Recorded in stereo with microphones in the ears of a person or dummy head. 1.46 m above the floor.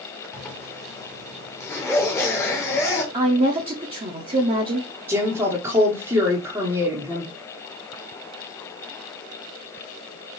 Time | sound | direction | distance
0.3 | a zipper | 15° left (ahead or behind) | 1.2 m
3.1 | a woman speaking | 30° right (ahead or behind) | 0.6 m
5.1 | a woman speaking | 15° right (ahead or behind) | 0.9 m